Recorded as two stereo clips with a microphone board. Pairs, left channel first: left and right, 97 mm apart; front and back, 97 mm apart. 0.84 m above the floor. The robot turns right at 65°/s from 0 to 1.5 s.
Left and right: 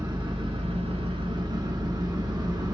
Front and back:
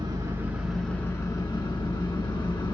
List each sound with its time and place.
0.0 s an engine running: 140° right, 1.1 m; by 2.8 s 40° right, 1.1 m